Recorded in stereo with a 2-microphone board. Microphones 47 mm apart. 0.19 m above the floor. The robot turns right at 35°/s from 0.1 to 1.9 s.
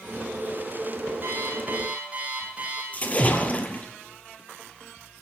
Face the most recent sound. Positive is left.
turn(degrees=30)  # may be behind; listen again after turning